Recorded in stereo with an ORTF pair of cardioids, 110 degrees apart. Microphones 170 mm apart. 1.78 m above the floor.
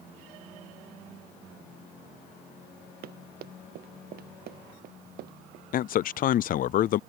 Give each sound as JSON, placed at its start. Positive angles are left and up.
{"t": 3.0, "sound": "running footsteps", "azimuth_deg": -65}
{"t": 5.7, "sound": "a man speaking", "azimuth_deg": 55}